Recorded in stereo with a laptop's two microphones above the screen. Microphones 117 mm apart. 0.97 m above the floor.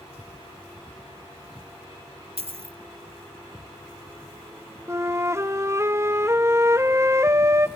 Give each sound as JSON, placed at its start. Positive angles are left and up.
{"t": 2.4, "sound": "a dropped coin", "side_deg": -65, "distance_m": 0.7}
{"t": 4.9, "sound": "a flute", "side_deg": -25, "distance_m": 0.5}